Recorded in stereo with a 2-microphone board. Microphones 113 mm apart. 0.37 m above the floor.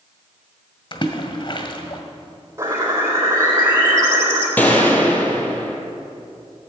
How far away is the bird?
About 3.5 m.